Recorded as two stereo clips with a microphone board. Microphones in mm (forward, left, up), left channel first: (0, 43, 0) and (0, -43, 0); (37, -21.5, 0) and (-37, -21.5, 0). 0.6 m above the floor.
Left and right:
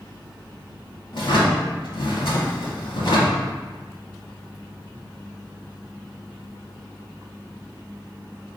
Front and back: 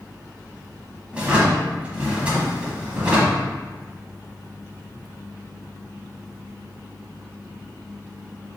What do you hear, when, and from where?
1.1 s a drawer: 110° left, 1.0 m